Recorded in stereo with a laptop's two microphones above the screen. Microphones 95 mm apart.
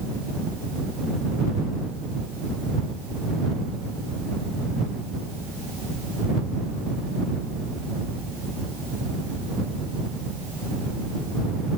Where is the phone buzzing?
No phone buzzing in this recording.